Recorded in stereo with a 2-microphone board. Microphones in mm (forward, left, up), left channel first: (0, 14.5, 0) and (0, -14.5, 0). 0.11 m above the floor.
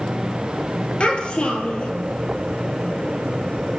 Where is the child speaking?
30° left (ahead or behind), 2.5 m.